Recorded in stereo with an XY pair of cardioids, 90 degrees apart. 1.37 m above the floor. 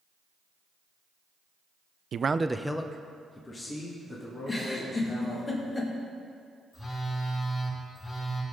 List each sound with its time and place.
2.1 s a man speaking: 60° right, 0.5 m; by 5.5 s 40° left, 4 m
4.5 s a giggle: 30° left, 2.5 m
6.7 s a phone buzzing: 35° left, 4.5 m